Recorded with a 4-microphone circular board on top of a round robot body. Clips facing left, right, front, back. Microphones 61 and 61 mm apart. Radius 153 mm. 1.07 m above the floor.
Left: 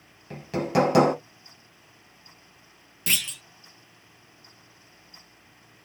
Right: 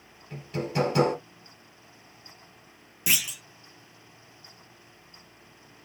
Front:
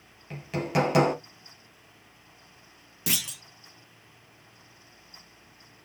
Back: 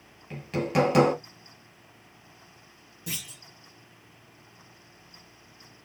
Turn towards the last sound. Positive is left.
turn(degrees=-10)